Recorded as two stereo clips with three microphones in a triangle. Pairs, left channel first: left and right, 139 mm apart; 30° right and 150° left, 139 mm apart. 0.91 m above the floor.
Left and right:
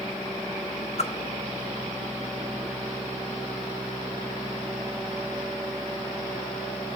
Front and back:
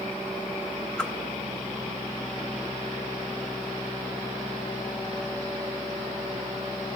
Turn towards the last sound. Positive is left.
turn(degrees=50)